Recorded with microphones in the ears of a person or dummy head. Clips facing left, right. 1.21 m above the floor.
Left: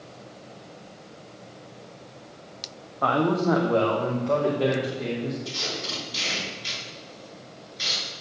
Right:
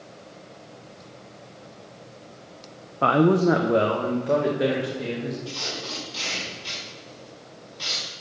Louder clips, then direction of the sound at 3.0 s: Right 4 dB; 40° right (ahead or behind).